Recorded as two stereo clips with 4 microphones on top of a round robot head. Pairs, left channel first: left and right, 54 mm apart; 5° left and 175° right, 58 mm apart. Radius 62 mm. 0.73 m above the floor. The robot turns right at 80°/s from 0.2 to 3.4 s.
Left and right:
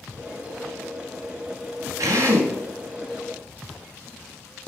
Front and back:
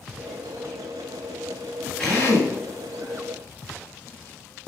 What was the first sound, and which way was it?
A drill, 70° right.